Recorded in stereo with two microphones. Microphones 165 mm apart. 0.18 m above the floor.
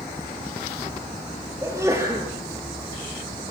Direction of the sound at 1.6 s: 15° right (ahead or behind).